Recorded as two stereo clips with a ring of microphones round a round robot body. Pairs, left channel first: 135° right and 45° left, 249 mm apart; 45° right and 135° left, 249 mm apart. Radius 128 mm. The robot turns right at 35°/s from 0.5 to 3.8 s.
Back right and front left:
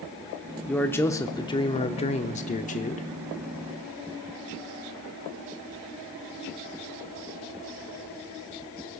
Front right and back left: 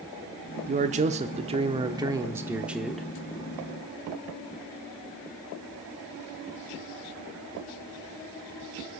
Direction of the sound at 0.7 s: 145° left.